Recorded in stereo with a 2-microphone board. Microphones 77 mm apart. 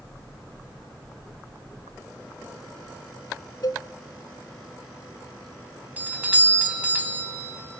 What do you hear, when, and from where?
3.6 s a cowbell: 60° left (ahead or behind), 0.6 m
6.0 s a doorbell: 20° right (ahead or behind), 1.7 m